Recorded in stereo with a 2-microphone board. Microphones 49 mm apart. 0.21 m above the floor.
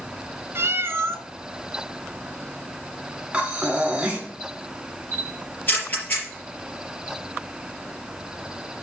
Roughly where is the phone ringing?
No phone ringing in this recording.